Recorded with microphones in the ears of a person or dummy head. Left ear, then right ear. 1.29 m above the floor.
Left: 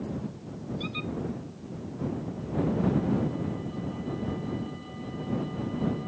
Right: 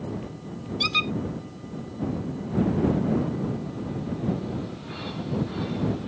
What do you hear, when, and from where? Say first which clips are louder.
0.8 s a squeak: right 13 dB; 45° right (ahead or behind)